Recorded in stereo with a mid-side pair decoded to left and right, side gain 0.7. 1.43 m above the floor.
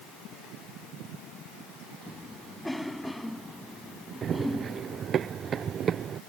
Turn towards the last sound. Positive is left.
turn(degrees=-35)